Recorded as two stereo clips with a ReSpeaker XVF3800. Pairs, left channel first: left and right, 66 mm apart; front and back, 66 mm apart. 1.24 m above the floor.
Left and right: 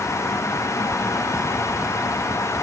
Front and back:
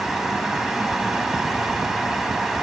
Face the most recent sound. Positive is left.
No sound to turn to.